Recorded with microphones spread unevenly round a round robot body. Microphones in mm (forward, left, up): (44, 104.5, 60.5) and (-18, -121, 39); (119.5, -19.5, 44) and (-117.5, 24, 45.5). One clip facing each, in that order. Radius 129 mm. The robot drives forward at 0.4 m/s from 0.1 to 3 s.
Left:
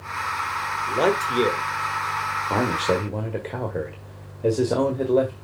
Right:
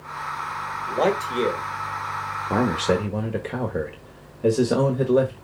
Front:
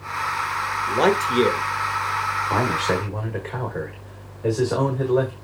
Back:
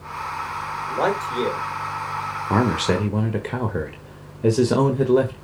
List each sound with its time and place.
0.9 s a man speaking: straight ahead, 1.7 m
2.5 s a man speaking: 175° right, 1.2 m